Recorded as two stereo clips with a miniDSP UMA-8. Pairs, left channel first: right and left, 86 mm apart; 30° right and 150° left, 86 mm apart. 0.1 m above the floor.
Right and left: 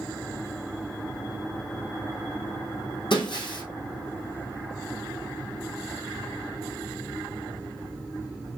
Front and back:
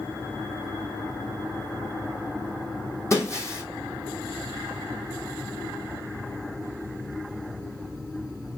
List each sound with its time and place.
3.1 s breaking glass: 85° right, 2.0 m